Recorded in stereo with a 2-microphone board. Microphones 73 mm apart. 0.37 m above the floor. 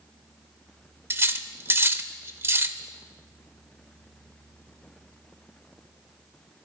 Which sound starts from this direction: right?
Cutlery clinking, at 1.1 s.